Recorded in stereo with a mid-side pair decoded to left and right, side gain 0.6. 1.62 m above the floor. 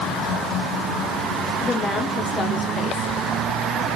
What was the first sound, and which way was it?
A woman speaking, 35° left.